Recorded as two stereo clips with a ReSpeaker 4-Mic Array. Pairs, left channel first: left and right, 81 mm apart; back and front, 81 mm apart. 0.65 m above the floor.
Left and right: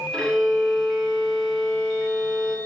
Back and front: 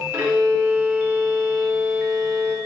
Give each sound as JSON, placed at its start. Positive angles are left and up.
{"t": 0.1, "sound": "a violin", "azimuth_deg": 25, "distance_m": 1.1}